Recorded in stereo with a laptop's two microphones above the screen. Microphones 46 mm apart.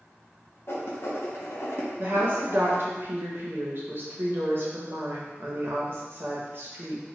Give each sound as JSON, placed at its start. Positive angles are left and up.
{"t": 0.7, "sound": "writing", "side_deg": 60, "distance_m": 0.6}
{"t": 2.0, "sound": "a woman speaking", "side_deg": -50, "distance_m": 0.7}